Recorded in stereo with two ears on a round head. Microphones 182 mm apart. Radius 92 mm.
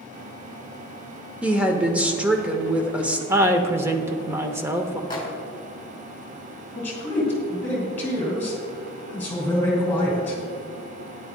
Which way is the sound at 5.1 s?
20° left (ahead or behind).